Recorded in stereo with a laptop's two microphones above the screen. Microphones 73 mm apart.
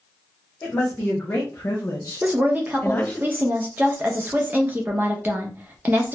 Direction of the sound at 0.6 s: 30° left (ahead or behind).